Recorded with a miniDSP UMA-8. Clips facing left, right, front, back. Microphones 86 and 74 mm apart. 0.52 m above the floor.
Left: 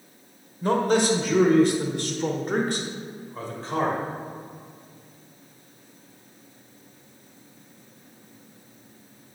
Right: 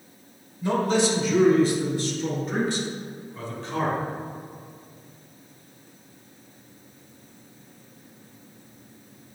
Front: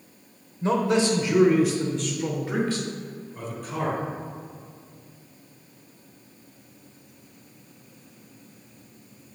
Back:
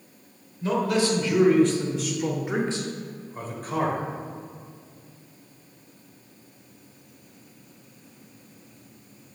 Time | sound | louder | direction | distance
0.6 | a man speaking | left 1 dB, front 2 dB | 55° left | 1.5 m